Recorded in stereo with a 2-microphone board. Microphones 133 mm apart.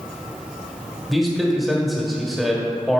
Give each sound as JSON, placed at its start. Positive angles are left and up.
{"t": 1.1, "sound": "a man speaking", "side_deg": 0, "distance_m": 1.3}